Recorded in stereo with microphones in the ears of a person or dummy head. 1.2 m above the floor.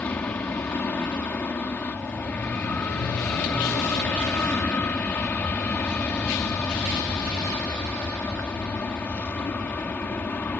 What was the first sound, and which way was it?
An aircraft, 10° left (ahead or behind).